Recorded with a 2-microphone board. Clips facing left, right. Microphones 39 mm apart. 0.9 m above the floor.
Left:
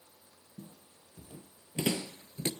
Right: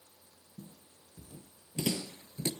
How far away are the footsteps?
About 1.8 m.